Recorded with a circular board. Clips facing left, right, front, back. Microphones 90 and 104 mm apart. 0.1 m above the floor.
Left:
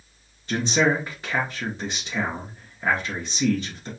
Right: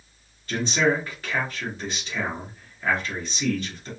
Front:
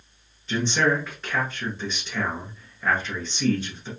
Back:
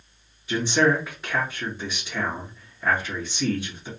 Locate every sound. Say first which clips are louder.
0.5 s a man speaking: left 1 dB, back 2 dB; 110° left, 1.2 m